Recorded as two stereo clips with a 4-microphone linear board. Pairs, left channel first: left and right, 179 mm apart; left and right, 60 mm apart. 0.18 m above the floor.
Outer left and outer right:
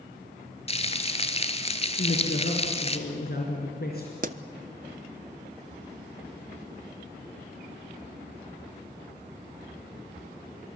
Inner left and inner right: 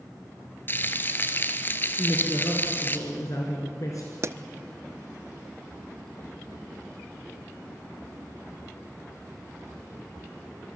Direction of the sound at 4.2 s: 45° right (ahead or behind).